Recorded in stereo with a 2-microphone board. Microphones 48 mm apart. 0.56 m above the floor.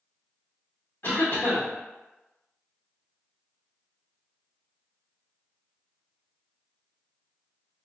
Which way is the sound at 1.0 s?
55° left (ahead or behind).